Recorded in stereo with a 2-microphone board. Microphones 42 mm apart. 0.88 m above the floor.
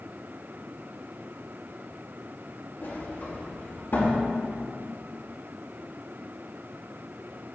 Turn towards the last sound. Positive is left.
turn(degrees=55)  # may be behind; listen again after turning